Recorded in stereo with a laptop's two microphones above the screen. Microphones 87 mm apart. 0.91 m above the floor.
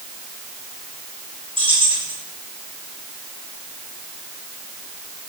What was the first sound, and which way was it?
Keys jangling, 85° right.